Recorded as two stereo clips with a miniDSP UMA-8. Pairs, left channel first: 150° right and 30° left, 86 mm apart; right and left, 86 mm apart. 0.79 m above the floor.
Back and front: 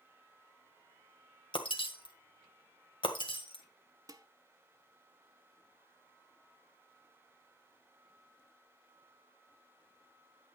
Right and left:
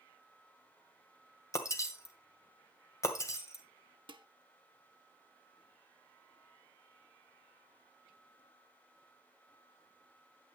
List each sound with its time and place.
1.5 s breaking glass: 145° right, 1.6 m
4.1 s dishes clattering: 80° left, 0.8 m